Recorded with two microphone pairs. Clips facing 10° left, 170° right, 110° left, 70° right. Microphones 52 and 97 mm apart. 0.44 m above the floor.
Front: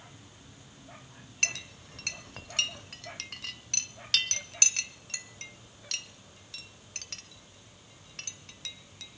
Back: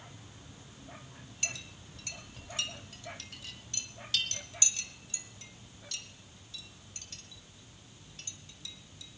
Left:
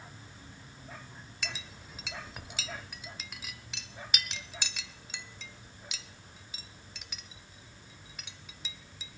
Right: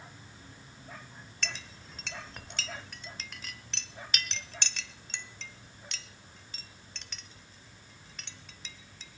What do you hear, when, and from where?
1.4 s a clink: 30° left, 0.7 m